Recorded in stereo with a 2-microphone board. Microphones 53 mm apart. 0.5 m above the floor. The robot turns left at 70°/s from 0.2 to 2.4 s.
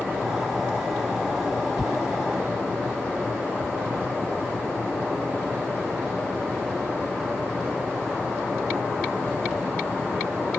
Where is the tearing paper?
10° left (ahead or behind); by 4.2 s 55° left (ahead or behind).